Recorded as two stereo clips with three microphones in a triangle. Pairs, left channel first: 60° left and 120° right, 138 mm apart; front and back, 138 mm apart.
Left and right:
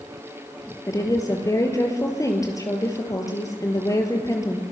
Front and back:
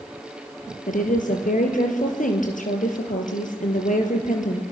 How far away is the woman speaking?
About 5 m.